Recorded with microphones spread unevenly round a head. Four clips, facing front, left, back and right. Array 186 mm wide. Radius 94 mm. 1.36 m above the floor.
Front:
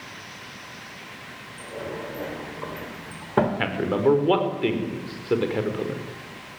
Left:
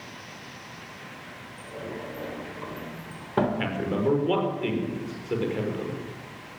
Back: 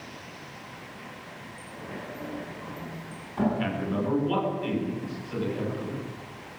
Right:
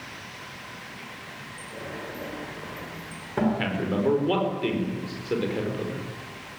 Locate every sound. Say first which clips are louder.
1.6 s a sliding door: left 2 dB, front 8 dB; 15° left, 3.5 m
3.6 s a man speaking: right 1 dB, front 6 dB; straight ahead, 5 m